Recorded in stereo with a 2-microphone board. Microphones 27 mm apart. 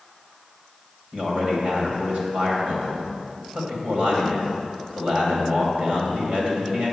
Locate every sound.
1.1 s a man speaking: 55° right (ahead or behind), 2.5 m